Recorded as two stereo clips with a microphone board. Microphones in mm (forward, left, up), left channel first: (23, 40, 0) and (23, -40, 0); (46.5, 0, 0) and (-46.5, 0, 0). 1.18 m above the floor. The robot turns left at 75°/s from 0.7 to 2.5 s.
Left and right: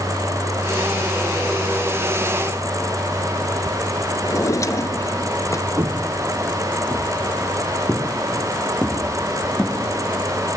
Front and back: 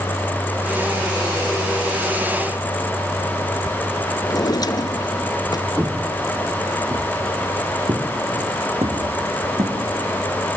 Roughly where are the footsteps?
Behind right.